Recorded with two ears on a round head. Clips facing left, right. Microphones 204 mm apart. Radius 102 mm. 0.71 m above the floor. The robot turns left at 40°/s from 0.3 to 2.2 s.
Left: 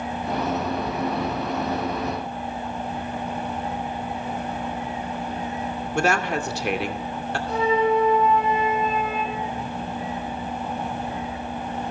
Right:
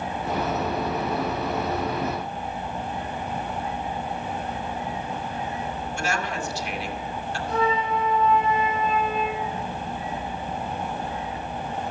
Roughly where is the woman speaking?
Left.